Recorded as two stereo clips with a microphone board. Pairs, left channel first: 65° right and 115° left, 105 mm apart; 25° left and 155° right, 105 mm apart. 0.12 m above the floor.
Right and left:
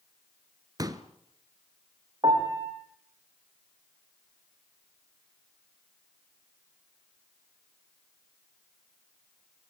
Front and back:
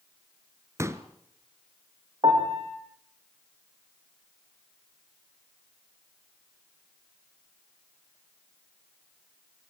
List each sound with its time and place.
0.8 s a pop: 150° left, 1.7 m
2.2 s a piano: 160° left, 6 m